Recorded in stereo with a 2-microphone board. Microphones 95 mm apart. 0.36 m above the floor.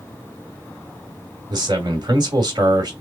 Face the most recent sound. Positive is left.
turn(degrees=-50)  # may be behind; listen again after turning